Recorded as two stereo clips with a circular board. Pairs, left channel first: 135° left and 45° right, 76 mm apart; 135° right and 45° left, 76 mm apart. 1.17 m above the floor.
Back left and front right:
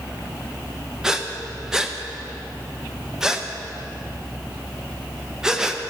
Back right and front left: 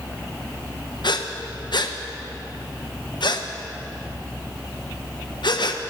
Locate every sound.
1.0 s breathing: 130° right, 0.7 m